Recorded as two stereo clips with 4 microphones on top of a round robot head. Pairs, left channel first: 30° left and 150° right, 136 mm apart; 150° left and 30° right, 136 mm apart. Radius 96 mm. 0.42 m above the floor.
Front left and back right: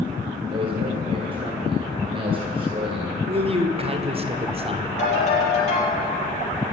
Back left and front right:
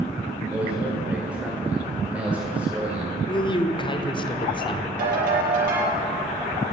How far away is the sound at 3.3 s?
About 1.3 m.